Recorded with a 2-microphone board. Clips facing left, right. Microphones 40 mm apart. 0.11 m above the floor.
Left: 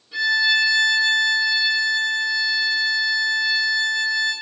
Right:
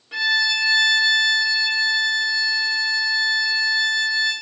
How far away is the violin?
About 3 m.